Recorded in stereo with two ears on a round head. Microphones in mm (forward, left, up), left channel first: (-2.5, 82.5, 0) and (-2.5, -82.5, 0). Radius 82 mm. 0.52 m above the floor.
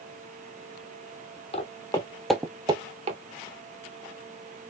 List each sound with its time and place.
1.5 s footsteps: 35° left (ahead or behind), 0.7 m; by 3.2 s 40° right (ahead or behind), 0.6 m